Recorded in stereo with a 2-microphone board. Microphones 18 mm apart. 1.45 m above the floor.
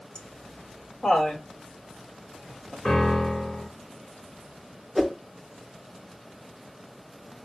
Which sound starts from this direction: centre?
A whoosh, at 5.0 s.